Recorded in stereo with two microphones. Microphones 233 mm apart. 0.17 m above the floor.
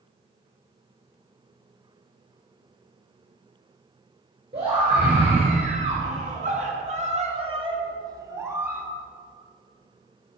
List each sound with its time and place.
4.5 s a scream: 25° right (ahead or behind), 3.5 m; by 8.9 s 10° right (ahead or behind), 2.5 m